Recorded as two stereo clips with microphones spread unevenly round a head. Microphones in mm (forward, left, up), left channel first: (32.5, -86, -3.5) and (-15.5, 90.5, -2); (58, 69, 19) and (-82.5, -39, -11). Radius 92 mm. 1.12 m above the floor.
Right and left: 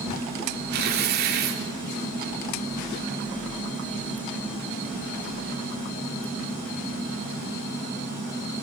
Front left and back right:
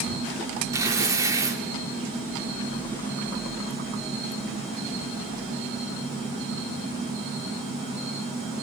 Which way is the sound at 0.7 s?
145° left.